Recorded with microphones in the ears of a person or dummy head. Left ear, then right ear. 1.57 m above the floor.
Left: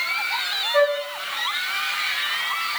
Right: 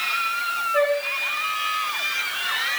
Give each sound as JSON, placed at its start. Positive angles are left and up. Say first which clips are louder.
{"t": 0.7, "sound": "a flute", "louder": "left 2 dB", "side_deg": 65, "distance_m": 3.5}